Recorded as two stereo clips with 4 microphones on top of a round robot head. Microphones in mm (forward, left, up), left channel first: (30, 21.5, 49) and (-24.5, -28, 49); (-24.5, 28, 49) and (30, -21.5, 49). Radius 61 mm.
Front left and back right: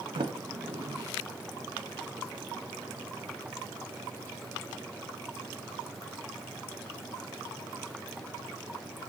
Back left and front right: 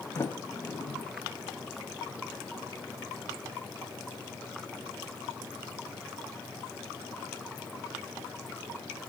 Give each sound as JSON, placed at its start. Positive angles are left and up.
{"t": 0.1, "sound": "a sliding door", "azimuth_deg": -160, "distance_m": 1.4}